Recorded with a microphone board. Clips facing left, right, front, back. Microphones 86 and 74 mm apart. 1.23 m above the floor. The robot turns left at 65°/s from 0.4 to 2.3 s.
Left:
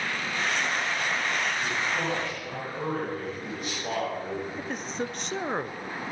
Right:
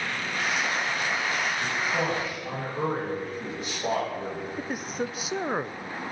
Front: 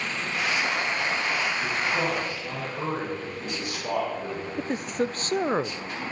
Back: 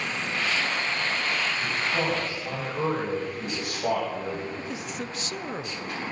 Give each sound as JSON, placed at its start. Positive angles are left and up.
{"t": 1.6, "sound": "a man speaking", "azimuth_deg": -95, "distance_m": 9.0}
{"t": 4.6, "sound": "a man speaking", "azimuth_deg": -5, "distance_m": 0.6}